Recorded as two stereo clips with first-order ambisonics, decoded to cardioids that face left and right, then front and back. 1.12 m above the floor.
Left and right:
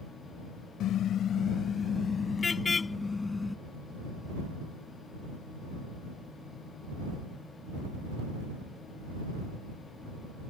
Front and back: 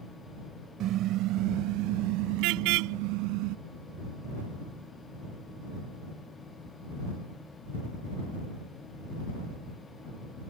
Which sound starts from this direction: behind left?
A car horn, at 0.8 s.